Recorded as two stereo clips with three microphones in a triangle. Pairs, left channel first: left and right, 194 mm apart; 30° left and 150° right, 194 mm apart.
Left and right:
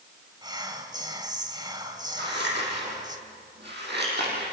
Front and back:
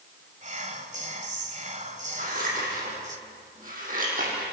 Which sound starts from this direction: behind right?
Whispering, at 0.4 s.